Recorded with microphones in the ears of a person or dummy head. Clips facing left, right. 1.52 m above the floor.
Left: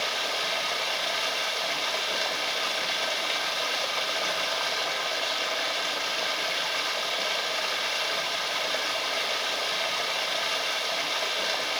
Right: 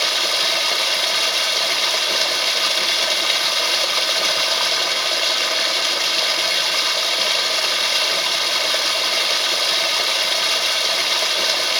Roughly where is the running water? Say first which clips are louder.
Right 6 dB; right.